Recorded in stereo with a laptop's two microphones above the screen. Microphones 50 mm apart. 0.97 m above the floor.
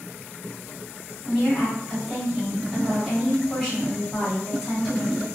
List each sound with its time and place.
1.2 s a woman speaking: 10° left (ahead or behind), 1.6 m